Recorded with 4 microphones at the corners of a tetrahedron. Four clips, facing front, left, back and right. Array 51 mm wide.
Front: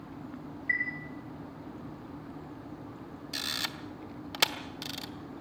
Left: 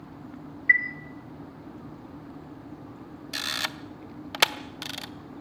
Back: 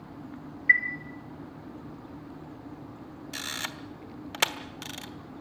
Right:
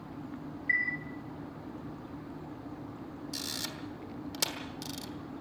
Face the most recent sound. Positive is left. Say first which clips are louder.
# left 10 dB, even
turn(degrees=105)